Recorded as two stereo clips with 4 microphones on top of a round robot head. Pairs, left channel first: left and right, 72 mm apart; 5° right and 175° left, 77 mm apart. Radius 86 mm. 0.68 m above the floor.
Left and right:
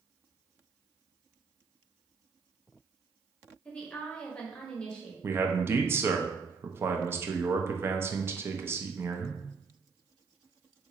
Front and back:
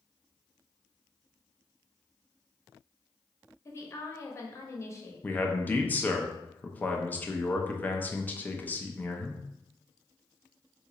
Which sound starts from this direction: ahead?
A woman speaking, at 3.6 s.